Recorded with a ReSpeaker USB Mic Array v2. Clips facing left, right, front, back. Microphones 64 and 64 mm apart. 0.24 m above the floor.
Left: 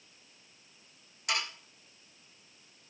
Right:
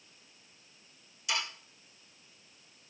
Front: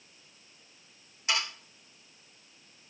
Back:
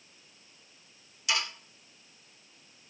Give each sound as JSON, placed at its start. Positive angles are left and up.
{"t": 1.3, "sound": "sawing", "azimuth_deg": 60, "distance_m": 9.0}